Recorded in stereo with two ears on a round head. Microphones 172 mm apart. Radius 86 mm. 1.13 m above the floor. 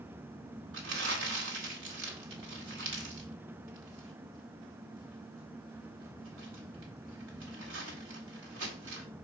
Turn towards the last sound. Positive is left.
turn(degrees=-80)